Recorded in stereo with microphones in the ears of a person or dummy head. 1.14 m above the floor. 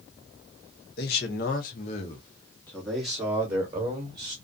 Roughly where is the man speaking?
Left.